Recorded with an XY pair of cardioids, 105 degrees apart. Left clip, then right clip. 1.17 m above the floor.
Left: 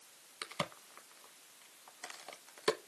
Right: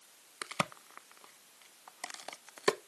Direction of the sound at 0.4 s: 45° right.